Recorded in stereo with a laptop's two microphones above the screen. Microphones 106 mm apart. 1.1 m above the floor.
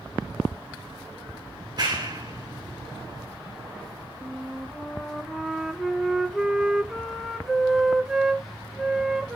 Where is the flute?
Centre (ahead or behind), 0.9 m.